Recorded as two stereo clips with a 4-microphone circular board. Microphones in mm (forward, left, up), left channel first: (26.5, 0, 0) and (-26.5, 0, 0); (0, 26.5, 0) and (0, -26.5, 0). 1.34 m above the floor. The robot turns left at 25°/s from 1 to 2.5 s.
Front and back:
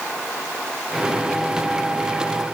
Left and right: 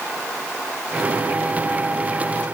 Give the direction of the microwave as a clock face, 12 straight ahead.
No microwave in this recording.